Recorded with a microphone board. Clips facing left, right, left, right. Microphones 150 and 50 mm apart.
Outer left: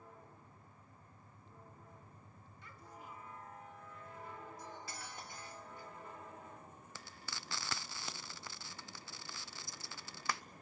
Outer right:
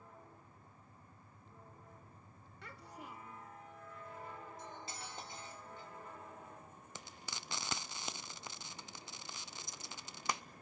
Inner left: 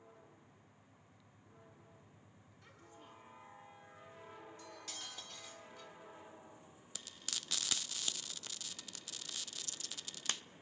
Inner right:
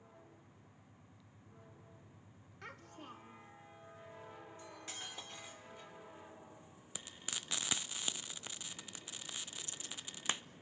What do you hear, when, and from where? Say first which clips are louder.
2.6 s a child speaking: outer right 3 dB, inner right 8 dB; 75° right (ahead or behind), 2 m
4.6 s cutlery clinking: even, inner right 1 dB; 25° right (ahead or behind), 2.5 m
7.0 s frying: outer right 2 dB, inner right 2 dB; 20° right (ahead or behind), 0.6 m